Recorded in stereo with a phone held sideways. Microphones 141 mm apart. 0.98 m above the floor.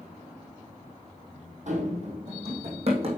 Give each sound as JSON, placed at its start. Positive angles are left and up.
{"t": 1.7, "sound": "running footsteps", "side_deg": -60, "distance_m": 2.5}